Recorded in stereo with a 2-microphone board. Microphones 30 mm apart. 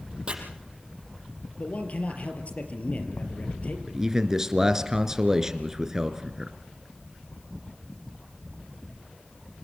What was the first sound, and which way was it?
Chopping, 35° right (ahead or behind).